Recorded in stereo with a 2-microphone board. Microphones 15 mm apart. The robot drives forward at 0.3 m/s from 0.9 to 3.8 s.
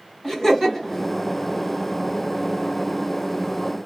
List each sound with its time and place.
0.2 s laughter: 30° left (ahead or behind), 1.8 m